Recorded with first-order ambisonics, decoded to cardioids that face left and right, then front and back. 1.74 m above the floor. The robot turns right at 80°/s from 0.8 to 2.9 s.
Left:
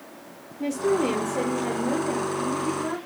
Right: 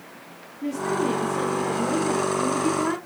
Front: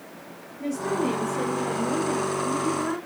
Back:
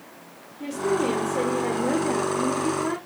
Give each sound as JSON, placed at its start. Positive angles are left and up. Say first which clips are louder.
{"t": 0.6, "sound": "a woman speaking", "louder": "left 2 dB, back 2 dB", "azimuth_deg": 95, "distance_m": 0.9}